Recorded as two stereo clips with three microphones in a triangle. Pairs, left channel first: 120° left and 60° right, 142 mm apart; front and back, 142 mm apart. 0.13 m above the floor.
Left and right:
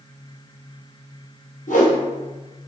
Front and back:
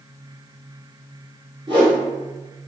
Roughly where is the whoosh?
Behind left.